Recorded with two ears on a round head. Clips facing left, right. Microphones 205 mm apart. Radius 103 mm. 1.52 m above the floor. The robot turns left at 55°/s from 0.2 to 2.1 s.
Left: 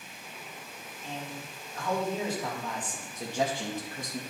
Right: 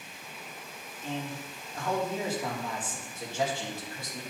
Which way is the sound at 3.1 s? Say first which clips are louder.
Left 1 dB; 20° left (ahead or behind).